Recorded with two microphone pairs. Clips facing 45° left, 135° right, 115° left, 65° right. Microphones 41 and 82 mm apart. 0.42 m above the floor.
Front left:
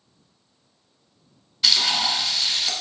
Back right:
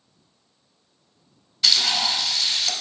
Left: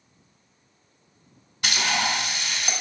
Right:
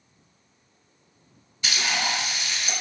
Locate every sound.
1.6 s frying: 135° left, 0.9 m